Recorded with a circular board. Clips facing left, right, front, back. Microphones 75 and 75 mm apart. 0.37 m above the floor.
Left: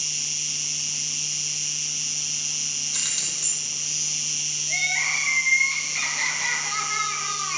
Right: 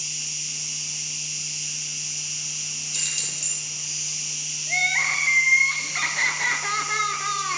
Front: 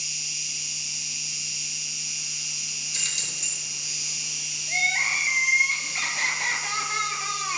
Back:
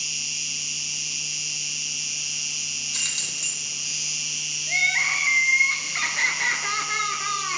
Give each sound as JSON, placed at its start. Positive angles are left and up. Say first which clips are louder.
{"t": 0.0, "sound": "an insect", "louder": "left 1 dB, back 3 dB", "azimuth_deg": 65, "distance_m": 0.7}
{"t": 2.9, "sound": "keys jangling", "louder": "even, back 1 dB", "azimuth_deg": 135, "distance_m": 3.0}
{"t": 4.7, "sound": "crying", "louder": "right 3 dB, back 2 dB", "azimuth_deg": -130, "distance_m": 0.9}